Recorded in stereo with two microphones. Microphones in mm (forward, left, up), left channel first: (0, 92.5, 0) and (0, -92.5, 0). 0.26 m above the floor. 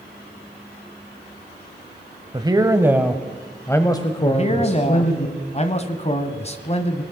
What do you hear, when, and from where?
2.3 s a man speaking: 25° right (ahead or behind), 1.1 m; by 5.3 s 45° left (ahead or behind), 1.5 m
4.3 s a man speaking: 35° left (ahead or behind), 1.5 m